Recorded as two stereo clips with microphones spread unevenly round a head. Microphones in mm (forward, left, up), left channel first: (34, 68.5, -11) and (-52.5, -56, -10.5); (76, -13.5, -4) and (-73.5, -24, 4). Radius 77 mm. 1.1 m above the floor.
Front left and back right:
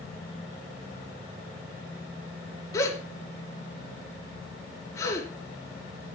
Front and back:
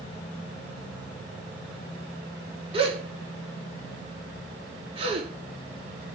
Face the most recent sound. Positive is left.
turn(degrees=125)